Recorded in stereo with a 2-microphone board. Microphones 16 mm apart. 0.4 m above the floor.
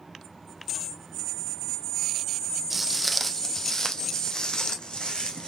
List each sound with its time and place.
2.7 s footsteps: 5° right (ahead or behind), 0.7 m; by 5.5 s 75° left (ahead or behind), 1.3 m